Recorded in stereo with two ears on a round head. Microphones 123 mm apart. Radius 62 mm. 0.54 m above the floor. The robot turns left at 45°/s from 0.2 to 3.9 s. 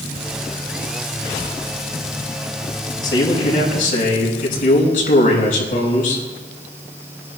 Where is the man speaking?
150° left, 4.5 m; by 6.2 s 110° left, 4.5 m.